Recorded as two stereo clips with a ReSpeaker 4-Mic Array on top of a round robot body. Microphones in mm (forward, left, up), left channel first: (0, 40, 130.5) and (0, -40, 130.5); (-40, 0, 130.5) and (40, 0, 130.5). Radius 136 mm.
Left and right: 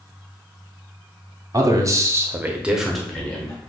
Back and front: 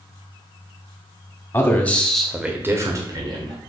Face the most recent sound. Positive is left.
turn(degrees=20)